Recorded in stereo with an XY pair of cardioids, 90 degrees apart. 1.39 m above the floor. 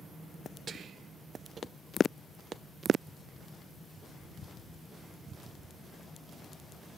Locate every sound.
0.7 s whispering: 60° right, 0.6 m